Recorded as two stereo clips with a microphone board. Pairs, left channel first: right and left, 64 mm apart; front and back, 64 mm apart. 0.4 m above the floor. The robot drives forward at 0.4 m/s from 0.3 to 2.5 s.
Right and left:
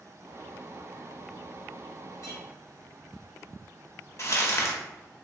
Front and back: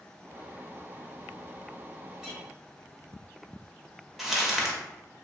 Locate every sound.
2.2 s a clink: 105° right, 1.3 m; by 2.4 s 110° right, 1.3 m
4.2 s crumpling: 100° right, 0.7 m